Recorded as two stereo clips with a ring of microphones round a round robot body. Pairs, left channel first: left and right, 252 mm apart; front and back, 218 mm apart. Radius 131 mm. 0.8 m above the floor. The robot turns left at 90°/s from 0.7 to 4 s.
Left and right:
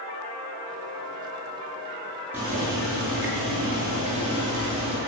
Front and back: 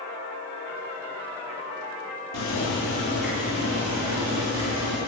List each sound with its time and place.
2.3 s boiling: 5° right, 6 m; by 5.0 s 155° right, 6 m